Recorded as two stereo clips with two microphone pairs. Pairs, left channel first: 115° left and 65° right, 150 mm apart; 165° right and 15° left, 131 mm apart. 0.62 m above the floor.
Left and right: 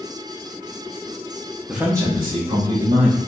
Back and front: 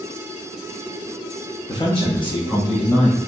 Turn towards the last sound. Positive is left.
turn(degrees=-115)